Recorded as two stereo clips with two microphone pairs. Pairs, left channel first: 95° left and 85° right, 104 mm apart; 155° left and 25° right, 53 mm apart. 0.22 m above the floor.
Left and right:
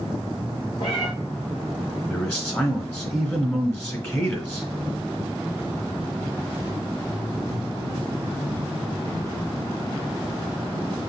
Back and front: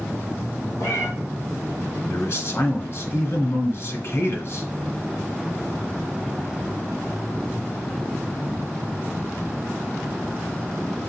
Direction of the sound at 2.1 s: 155° left.